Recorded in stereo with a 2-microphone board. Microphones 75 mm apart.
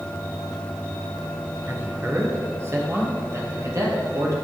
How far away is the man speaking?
About 2.5 m.